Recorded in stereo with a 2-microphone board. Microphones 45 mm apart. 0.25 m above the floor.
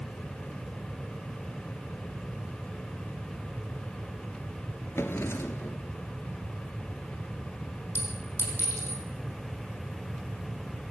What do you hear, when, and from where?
5.0 s a drawer: 65° left (ahead or behind), 1.7 m
8.0 s a clink: 65° left (ahead or behind), 5.5 m